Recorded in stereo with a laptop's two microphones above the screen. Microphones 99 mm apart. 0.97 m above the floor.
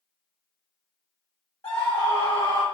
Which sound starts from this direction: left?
A scream, at 1.6 s.